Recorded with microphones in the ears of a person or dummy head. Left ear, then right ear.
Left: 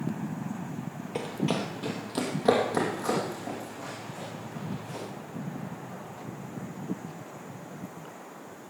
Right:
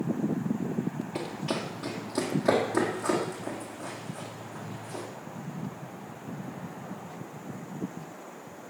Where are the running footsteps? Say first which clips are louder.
Left 4 dB; 20° left (ahead or behind), 2.5 m; by 5.0 s 15° left (ahead or behind), 7.5 m.